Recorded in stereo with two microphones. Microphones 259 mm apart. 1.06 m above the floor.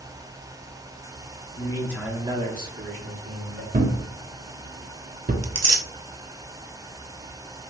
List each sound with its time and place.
1.5 s a man speaking: 25° left (ahead or behind), 1.0 m; by 3.6 s 60° right (ahead or behind), 1.7 m
3.7 s a thud: 35° right (ahead or behind), 0.6 m
5.4 s tearing paper: 70° right (ahead or behind), 0.6 m